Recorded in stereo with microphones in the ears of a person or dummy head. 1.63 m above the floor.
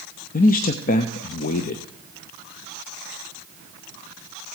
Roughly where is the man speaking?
Left.